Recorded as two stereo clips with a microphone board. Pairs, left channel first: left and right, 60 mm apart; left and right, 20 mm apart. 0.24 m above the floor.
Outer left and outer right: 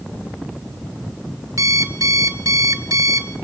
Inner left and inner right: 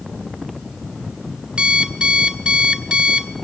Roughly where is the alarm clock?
Right.